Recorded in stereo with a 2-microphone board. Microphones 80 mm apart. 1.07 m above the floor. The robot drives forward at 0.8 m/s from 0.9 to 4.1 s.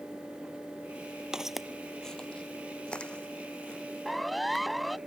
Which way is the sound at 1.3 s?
10° right (ahead or behind).